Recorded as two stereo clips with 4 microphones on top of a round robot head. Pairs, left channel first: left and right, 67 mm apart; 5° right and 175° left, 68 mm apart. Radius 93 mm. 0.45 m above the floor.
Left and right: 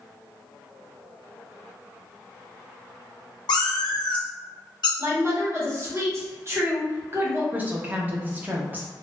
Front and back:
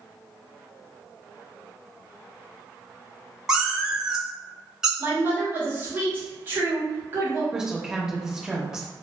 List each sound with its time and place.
3.5 s a cat meowing: 95° left, 0.7 m
5.0 s a woman speaking: 130° right, 1.4 m
7.5 s a woman speaking: 110° right, 0.8 m